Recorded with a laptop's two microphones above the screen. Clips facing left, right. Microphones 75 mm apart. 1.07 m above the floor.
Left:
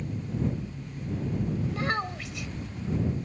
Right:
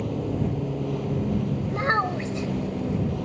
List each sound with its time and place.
0.0 s a vehicle: 80° right
1.7 s a child speaking: 30° right (ahead or behind)